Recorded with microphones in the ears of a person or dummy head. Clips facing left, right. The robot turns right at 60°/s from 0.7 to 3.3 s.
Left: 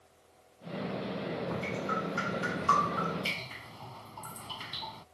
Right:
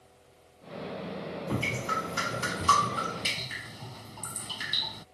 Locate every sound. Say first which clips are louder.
1.5 s dripping: right 1 dB; 135° right; by 5.0 s 25° right